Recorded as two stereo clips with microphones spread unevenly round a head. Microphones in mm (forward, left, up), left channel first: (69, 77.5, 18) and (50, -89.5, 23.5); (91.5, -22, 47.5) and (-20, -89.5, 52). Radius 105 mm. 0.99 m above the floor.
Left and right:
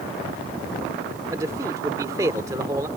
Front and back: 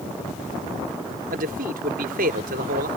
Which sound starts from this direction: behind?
A man speaking, at 1.3 s.